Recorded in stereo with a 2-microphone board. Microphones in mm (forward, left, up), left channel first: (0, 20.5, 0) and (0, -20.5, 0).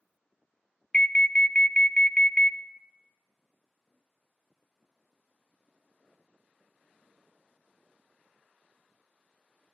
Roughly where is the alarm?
Left.